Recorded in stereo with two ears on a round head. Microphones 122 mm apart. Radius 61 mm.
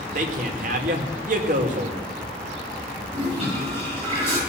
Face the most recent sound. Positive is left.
turn(degrees=-40)  # may be behind; listen again after turning